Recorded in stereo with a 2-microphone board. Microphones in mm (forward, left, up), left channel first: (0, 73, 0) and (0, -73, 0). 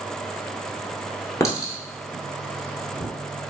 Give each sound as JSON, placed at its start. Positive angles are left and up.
{"t": 1.4, "sound": "a clink", "side_deg": 20, "distance_m": 0.9}